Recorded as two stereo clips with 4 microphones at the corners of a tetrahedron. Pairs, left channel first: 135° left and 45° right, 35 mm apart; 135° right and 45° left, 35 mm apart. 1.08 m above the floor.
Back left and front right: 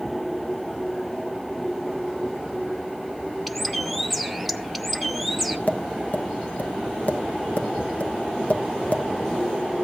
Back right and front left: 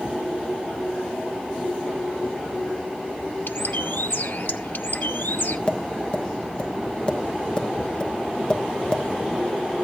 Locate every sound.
3.5 s a bird: 135° right, 0.7 m
5.7 s tapping: 170° left, 1.0 m